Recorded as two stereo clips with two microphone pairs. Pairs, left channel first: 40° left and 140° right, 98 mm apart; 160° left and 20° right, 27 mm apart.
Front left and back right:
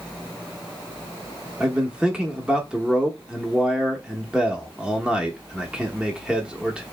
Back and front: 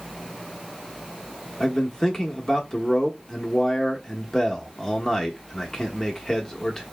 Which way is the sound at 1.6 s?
155° left.